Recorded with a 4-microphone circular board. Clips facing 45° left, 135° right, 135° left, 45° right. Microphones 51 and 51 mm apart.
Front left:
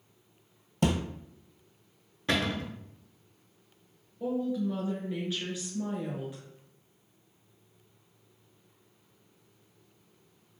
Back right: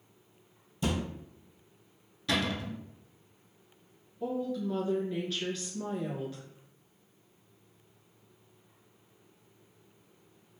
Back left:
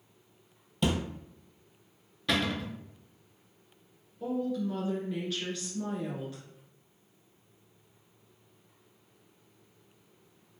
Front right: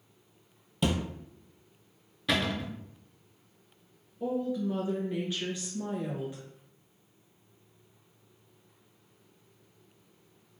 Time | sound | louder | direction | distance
0.8 | a thud | front left 4 dB, even | 40° left | 0.6 m
2.3 | a cupboard door | front left 1 dB, even | 40° left | 0.6 m
4.2 | a woman speaking | front left 3 dB, front right 1 dB | 5° right | 1.1 m